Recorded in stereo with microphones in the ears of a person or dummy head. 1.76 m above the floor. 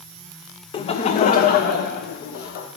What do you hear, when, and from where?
0.7 s laughter: 25° left (ahead or behind), 0.6 m; by 2.7 s 45° left (ahead or behind), 1.5 m